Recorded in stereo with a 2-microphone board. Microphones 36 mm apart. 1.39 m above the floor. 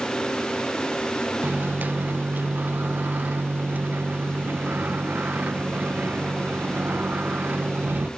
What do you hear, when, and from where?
1.4 s a microwave: 55° right (ahead or behind), 0.5 m